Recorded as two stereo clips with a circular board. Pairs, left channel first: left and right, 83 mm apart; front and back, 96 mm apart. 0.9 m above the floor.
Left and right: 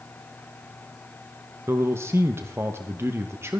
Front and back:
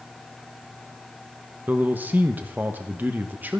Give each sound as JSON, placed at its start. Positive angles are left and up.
{"t": 1.7, "sound": "a man speaking", "azimuth_deg": -120, "distance_m": 0.9}